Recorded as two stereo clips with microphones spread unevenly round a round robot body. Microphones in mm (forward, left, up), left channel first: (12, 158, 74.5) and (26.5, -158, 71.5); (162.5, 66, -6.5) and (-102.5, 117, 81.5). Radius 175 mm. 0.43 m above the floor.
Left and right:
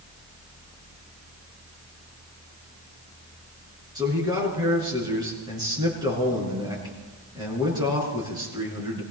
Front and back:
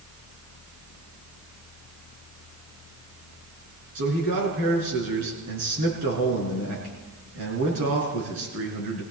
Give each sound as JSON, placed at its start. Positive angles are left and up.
{"t": 4.0, "sound": "a man speaking", "azimuth_deg": -165, "distance_m": 5.5}